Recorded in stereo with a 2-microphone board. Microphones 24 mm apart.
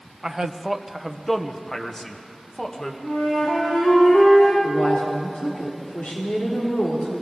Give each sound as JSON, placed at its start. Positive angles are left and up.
{"t": 0.2, "sound": "a man speaking", "side_deg": -25, "distance_m": 0.9}
{"t": 3.0, "sound": "a flute", "side_deg": 55, "distance_m": 9.5}
{"t": 4.6, "sound": "a woman speaking", "side_deg": 75, "distance_m": 3.5}